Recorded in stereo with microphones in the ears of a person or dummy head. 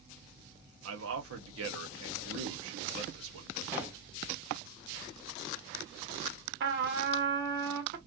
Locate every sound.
0.8 s a man speaking: 65° right (ahead or behind), 0.9 m
3.7 s a gunshot: 10° right (ahead or behind), 1.1 m
6.6 s a trumpet: 55° right (ahead or behind), 0.9 m